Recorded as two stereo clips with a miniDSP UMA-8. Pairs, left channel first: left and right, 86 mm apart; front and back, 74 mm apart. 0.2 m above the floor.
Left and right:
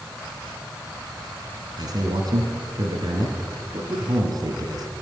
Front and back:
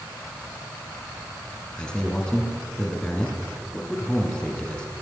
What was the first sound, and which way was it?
A man speaking, 75° right.